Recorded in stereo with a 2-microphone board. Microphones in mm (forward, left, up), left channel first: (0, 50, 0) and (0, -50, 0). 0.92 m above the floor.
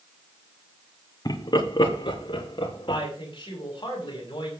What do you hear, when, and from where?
1.2 s laughter: 40° left (ahead or behind), 1.7 m; by 3.0 s 55° left (ahead or behind), 3.5 m
2.9 s a woman speaking: 50° left (ahead or behind), 6 m